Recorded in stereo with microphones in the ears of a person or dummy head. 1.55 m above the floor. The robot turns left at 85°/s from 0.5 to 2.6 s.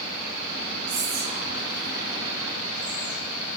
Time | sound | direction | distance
0.9 | whispering | 85° right | 1.3 m